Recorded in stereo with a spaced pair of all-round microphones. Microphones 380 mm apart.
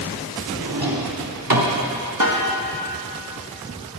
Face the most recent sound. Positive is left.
turn(degrees=-55)  # may be behind; listen again after turning